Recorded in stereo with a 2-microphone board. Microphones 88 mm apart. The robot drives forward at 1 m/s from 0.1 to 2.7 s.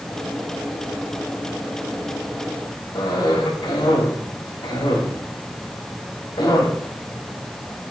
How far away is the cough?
About 2 m.